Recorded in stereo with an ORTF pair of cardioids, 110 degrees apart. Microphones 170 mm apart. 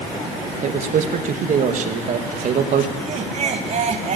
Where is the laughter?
45° right, 4 m.